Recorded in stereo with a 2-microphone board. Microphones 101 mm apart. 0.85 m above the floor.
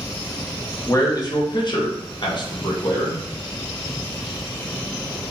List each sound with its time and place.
0.9 s a man speaking: 30° left (ahead or behind), 0.8 m; by 3.2 s 45° left (ahead or behind), 1.2 m